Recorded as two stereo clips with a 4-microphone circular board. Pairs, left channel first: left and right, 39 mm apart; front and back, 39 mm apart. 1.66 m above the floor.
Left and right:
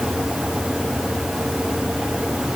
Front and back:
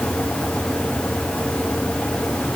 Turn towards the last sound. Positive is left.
No sound to turn to.